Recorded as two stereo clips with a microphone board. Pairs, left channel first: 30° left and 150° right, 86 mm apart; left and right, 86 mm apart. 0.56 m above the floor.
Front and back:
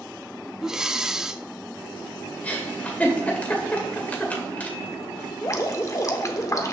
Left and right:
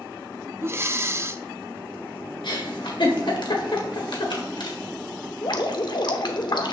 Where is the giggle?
100° left, 1.9 m.